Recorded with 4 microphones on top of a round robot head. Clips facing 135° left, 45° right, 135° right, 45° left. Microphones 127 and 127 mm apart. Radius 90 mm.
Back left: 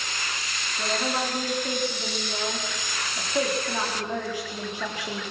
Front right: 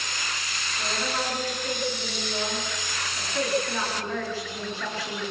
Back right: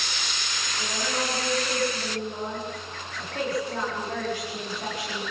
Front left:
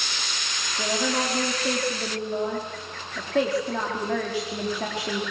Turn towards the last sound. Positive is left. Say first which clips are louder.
# back left 3 dB, front left 5 dB
turn(degrees=60)